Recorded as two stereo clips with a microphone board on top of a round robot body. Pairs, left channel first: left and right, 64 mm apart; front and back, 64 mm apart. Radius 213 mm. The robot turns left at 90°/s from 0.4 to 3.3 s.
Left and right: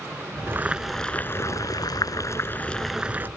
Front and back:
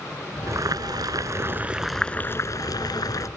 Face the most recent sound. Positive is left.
turn(degrees=-35)